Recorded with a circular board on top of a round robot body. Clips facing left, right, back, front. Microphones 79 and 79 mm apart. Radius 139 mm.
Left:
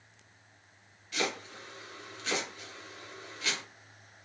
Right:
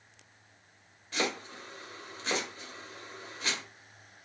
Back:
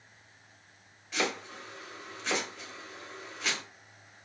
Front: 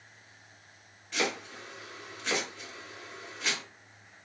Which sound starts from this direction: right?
Chopping, at 1.1 s.